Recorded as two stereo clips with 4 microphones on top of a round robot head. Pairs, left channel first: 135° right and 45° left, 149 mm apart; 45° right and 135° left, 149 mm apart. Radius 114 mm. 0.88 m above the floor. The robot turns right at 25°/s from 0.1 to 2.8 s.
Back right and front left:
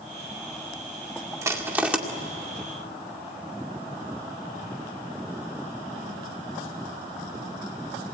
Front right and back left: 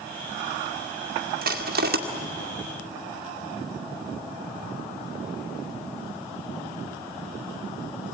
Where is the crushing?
115° left, 2 m; by 2.0 s 130° left, 2 m.